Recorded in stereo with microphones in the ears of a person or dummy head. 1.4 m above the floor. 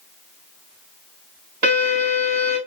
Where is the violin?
50° right (ahead or behind), 2.5 m.